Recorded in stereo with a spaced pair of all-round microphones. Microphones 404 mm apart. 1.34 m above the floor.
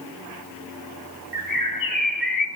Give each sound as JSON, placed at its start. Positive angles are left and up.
{"t": 1.3, "sound": "a bird", "side_deg": 50, "distance_m": 1.9}